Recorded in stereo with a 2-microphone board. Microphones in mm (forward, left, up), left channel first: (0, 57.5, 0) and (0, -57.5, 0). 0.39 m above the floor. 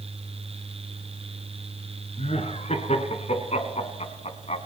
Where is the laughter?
70° left (ahead or behind), 4.5 m.